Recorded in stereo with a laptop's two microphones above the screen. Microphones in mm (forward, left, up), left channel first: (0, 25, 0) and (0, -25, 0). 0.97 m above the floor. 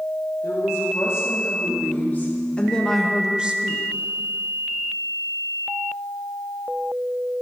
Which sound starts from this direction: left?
A woman speaking, at 0.4 s.